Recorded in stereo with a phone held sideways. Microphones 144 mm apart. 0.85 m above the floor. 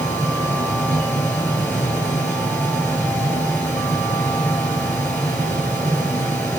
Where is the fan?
10° left (ahead or behind), 8 m.